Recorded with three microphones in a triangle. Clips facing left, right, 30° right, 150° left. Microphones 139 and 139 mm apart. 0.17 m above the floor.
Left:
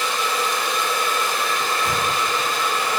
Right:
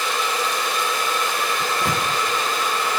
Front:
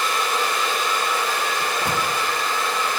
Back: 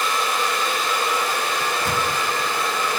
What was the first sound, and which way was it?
A microwave, 100° right.